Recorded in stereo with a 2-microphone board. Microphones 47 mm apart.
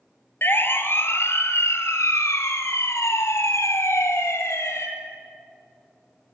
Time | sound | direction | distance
0.4 | a siren | 50° left (ahead or behind) | 2.5 m